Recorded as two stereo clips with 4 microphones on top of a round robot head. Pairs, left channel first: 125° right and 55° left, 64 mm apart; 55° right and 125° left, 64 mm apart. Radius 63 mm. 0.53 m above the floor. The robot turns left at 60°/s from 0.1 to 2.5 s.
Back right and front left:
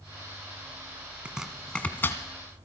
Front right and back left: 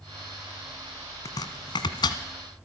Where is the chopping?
20° right, 1.4 m; by 2.2 s 75° right, 1.4 m.